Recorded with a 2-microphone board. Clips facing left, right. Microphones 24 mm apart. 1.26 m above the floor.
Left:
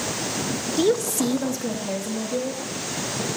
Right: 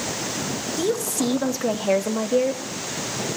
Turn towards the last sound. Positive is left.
turn(degrees=-70)  # may be behind; listen again after turning